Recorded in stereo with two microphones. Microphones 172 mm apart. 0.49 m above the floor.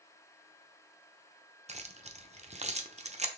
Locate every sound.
1.7 s keys jangling: 40° right (ahead or behind), 0.6 m